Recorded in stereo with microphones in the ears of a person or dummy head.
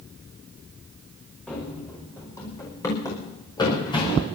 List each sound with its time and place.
1.5 s running footsteps: 10° left (ahead or behind), 5 m; by 4.3 s 30° left (ahead or behind), 5 m